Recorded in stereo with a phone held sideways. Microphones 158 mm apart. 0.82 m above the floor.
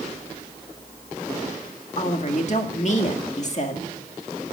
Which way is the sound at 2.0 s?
45° left (ahead or behind).